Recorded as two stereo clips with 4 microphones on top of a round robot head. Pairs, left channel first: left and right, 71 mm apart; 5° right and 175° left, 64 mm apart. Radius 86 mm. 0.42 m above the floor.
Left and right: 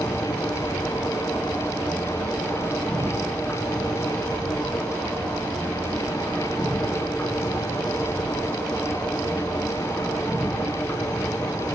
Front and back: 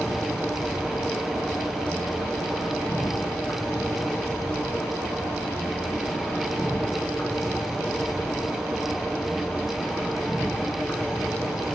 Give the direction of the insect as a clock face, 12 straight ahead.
11 o'clock.